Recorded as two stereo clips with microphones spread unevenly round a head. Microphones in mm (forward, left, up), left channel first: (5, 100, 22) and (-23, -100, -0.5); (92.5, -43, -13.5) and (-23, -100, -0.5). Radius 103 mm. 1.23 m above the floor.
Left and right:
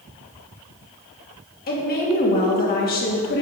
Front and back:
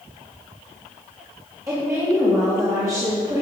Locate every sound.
1.7 s a woman speaking: 130° left, 2.5 m